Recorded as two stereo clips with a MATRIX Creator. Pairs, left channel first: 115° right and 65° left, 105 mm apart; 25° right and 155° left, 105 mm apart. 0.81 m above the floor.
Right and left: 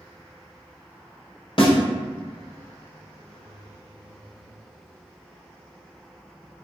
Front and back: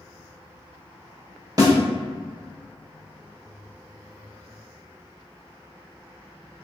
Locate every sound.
1.6 s a snare drum: 150° right, 0.9 m